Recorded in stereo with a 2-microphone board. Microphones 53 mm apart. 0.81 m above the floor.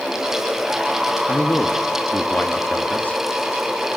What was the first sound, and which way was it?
A man speaking, 30° left (ahead or behind).